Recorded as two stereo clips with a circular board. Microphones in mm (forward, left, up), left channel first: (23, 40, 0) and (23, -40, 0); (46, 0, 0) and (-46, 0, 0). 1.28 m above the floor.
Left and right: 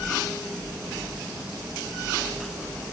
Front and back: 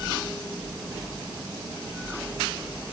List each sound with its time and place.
Only background noise.